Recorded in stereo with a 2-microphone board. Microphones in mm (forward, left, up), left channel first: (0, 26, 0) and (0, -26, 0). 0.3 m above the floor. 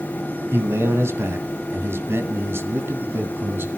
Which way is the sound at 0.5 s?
55° right (ahead or behind).